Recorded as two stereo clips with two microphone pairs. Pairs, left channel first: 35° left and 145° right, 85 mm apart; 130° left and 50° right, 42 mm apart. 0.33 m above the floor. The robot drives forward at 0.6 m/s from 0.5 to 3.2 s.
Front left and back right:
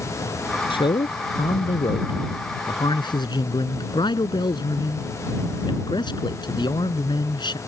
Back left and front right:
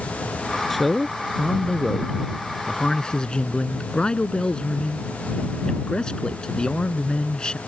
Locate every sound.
0.7 s a man speaking: 45° left; by 7.6 s 60° left